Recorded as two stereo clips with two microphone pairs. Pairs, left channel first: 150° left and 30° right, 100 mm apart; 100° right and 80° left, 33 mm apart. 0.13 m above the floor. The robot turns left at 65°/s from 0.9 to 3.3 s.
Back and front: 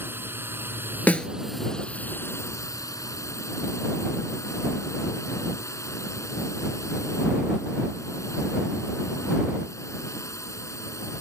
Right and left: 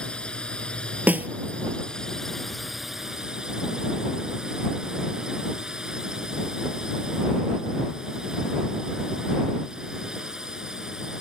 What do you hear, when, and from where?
0.0 s a drone: 75° right; by 11.2 s 130° left
1.1 s a snare drum: 80° left; by 1.3 s 65° left